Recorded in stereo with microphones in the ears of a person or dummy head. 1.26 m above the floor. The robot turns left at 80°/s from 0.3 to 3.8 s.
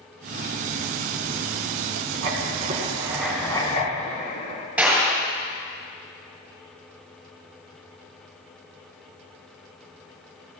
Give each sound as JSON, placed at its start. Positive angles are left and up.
{"t": 2.2, "sound": "writing", "azimuth_deg": -95, "distance_m": 2.5}
{"t": 4.8, "sound": "a clap", "side_deg": -5, "distance_m": 6.0}